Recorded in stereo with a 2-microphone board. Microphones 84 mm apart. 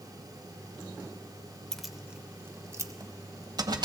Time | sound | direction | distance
1.7 | keys jangling | 5° left (ahead or behind) | 0.8 m